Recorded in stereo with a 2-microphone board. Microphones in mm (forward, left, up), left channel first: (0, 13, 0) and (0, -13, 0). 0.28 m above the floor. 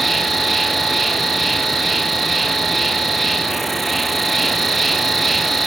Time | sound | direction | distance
0.0 | an insect | centre (ahead or behind) | 2.5 m